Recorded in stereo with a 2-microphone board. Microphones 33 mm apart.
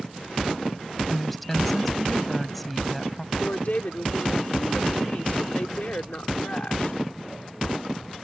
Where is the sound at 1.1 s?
5° left (ahead or behind).